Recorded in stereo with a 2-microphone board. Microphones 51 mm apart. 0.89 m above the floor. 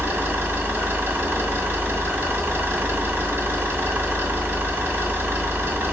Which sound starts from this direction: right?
An engine running, at 0.0 s.